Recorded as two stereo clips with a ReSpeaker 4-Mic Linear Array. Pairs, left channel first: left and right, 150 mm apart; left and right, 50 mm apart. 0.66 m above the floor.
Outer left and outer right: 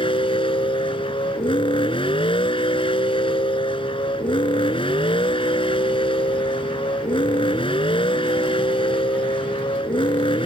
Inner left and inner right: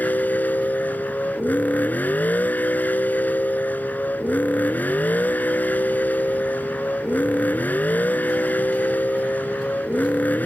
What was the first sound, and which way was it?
A vehicle, 40° left (ahead or behind).